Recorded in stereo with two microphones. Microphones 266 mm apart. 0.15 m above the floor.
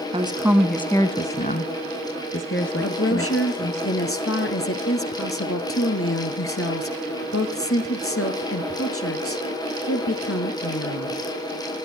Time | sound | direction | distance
0.1 | a woman speaking | 20° right (ahead or behind) | 1.1 m
2.8 | a woman speaking | 55° left (ahead or behind) | 2.5 m